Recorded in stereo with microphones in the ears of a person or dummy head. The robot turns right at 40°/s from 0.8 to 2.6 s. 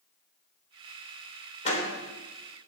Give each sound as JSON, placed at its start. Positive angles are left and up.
{"t": 1.6, "sound": "a door slam", "side_deg": 40, "distance_m": 3.0}